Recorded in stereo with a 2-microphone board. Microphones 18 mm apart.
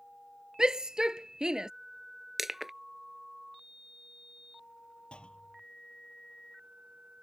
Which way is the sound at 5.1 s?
75° left (ahead or behind).